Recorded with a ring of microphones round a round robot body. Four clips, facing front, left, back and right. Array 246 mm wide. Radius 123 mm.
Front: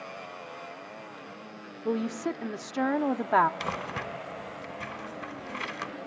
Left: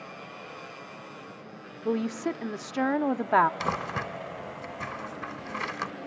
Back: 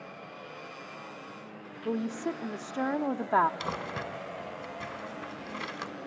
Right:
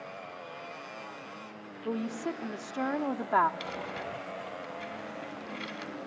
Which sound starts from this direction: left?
Crumpling, at 3.6 s.